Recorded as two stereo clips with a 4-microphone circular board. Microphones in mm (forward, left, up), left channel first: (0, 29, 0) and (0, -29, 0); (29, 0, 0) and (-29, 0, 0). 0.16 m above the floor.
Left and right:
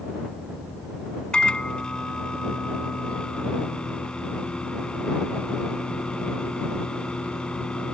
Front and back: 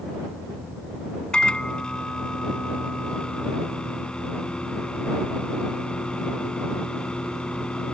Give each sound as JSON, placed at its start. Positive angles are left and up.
{"t": 1.3, "sound": "a microwave", "azimuth_deg": 45}